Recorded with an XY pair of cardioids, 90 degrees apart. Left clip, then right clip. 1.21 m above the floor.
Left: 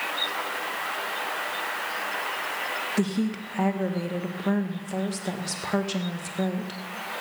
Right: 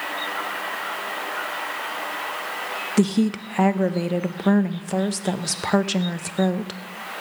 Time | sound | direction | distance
3.0 | a woman speaking | 50° right | 0.8 m